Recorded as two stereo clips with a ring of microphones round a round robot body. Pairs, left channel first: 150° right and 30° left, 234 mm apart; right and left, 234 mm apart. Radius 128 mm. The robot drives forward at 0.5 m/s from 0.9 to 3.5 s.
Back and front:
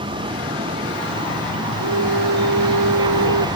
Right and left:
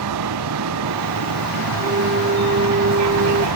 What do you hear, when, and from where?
0.0 s a vehicle: 100° left; by 3.6 s 105° left
1.8 s a flute: 35° left; by 3.5 s 40° left